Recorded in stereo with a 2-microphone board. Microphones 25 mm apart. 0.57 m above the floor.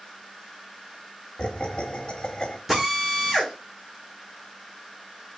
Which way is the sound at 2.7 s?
10° right (ahead or behind).